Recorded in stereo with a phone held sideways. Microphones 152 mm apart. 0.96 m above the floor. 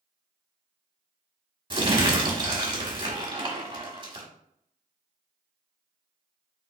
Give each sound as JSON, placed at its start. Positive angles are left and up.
{"t": 1.7, "sound": "crumpling", "side_deg": -35, "distance_m": 0.9}